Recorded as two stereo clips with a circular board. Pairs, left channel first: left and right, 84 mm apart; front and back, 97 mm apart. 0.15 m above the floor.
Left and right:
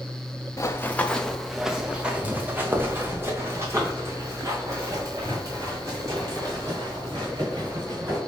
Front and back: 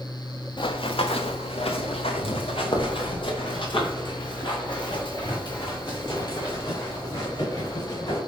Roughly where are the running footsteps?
Ahead left.